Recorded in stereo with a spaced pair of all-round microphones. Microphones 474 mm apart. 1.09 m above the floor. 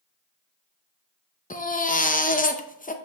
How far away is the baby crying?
About 0.6 m.